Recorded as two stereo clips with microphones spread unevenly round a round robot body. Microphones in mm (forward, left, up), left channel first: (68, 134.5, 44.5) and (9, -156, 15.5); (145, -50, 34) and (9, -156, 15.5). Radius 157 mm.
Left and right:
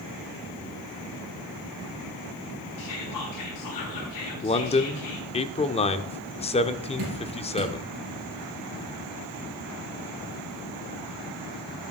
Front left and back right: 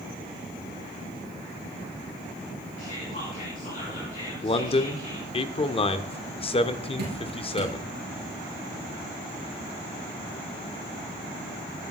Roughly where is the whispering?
Left.